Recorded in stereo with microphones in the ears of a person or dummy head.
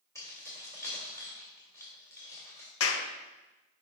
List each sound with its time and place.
0.1 s keys jangling: 15° left (ahead or behind), 2.5 m
2.8 s a clap: 80° left, 0.8 m